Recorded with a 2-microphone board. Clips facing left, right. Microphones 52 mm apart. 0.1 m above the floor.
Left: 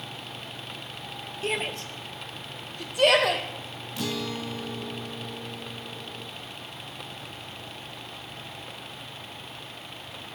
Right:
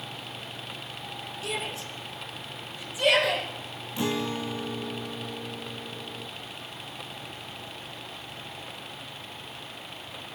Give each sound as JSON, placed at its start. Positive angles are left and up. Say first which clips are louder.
{"t": 1.4, "sound": "a shout", "louder": "left 4 dB", "side_deg": 40, "distance_m": 1.7}
{"t": 4.0, "sound": "a guitar", "louder": "right 3 dB", "side_deg": -25, "distance_m": 0.9}